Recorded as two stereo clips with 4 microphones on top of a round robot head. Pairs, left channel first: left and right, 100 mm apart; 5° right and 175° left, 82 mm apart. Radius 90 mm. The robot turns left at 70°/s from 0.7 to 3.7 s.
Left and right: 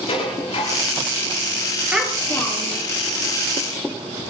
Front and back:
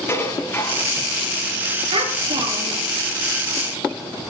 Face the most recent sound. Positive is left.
turn(degrees=65)